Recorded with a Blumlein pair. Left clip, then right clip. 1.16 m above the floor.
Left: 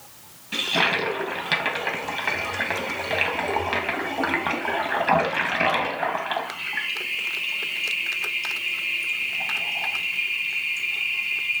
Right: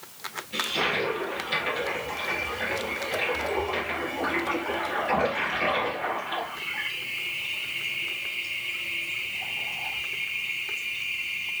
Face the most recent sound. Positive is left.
turn(degrees=45)